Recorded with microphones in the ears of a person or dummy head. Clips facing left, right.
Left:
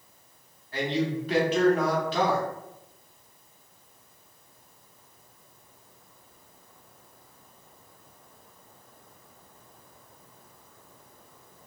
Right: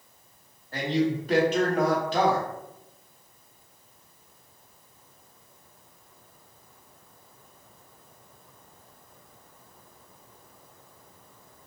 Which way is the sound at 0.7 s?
40° right (ahead or behind).